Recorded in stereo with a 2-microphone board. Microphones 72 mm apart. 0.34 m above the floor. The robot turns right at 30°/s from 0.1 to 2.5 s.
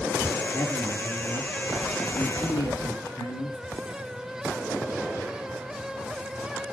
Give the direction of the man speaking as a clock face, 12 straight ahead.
10 o'clock.